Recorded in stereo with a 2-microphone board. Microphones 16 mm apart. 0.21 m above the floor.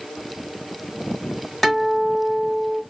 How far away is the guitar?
About 1.4 m.